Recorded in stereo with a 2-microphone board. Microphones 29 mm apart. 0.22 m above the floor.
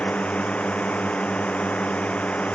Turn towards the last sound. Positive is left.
turn(degrees=45)  # may be behind; listen again after turning